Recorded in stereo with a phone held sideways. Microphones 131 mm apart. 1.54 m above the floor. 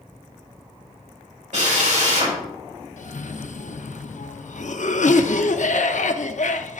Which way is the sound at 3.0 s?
70° left (ahead or behind).